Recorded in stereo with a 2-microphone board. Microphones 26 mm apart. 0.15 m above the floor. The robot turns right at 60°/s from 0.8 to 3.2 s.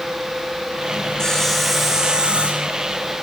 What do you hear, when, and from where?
1.2 s sawing: 155° left, 6.5 m; by 2.8 s 110° right, 6.5 m